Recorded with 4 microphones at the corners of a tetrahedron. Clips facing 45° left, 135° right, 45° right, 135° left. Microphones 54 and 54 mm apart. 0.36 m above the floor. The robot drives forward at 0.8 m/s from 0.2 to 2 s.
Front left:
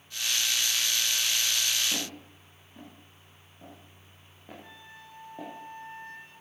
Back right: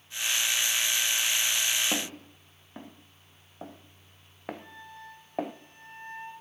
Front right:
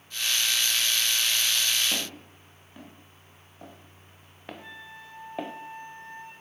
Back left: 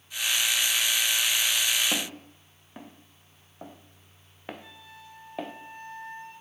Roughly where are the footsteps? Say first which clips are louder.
Back right 3 dB, back left 2 dB; behind.